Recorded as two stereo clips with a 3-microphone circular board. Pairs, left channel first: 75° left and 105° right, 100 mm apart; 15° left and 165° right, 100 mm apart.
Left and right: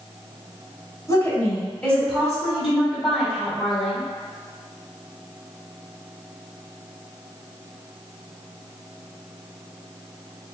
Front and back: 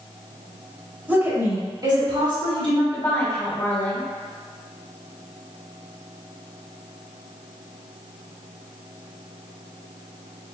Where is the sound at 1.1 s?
125° left, 1.6 m; by 2.8 s 170° left, 3 m.